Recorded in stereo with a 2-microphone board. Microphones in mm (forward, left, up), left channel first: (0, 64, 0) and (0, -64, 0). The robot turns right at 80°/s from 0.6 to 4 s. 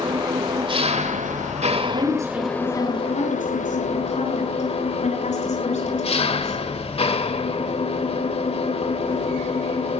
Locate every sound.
0.0 s an engine running: 145° right, 2 m; by 10.0 s 125° left, 2 m
1.8 s a woman speaking: 55° right (ahead or behind), 9.5 m; by 6.6 s 60° left (ahead or behind), 9.5 m